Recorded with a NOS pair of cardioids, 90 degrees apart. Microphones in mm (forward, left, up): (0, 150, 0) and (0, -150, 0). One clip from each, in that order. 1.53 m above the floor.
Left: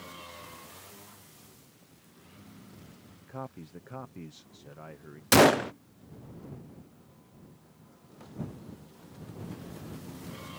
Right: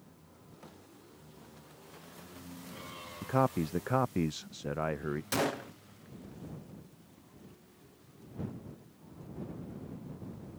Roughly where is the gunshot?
Ahead left.